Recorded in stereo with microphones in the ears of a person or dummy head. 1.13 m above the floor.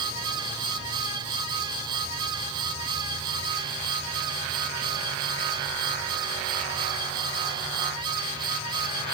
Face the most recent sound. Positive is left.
No sound to turn to.